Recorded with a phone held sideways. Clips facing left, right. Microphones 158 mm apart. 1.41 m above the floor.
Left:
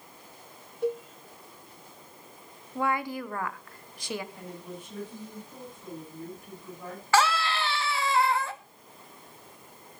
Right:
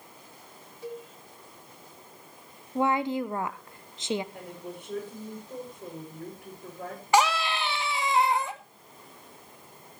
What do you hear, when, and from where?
0.8 s a cowbell: 60° left (ahead or behind), 1.0 m
2.8 s a woman speaking: 25° right (ahead or behind), 0.9 m
4.3 s a woman speaking: 70° right (ahead or behind), 7.5 m
7.1 s a scream: 20° right (ahead or behind), 2 m